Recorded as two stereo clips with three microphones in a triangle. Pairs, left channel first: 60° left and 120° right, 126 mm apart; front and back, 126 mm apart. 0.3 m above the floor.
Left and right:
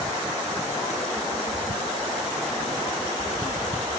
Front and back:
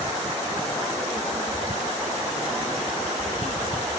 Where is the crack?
I don't hear a crack.